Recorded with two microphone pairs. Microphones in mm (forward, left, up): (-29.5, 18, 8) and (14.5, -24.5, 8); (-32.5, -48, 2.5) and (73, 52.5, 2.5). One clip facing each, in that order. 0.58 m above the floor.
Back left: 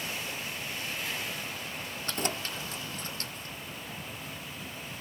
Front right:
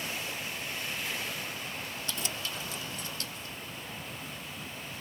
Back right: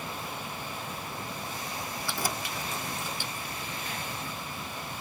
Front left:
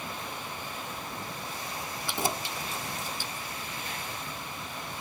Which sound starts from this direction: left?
Keys jangling, at 2.1 s.